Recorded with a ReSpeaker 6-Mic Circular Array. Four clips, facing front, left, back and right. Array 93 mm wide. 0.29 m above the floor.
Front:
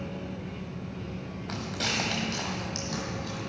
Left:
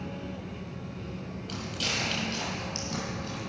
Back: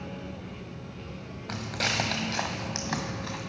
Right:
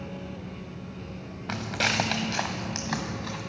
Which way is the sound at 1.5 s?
100° right.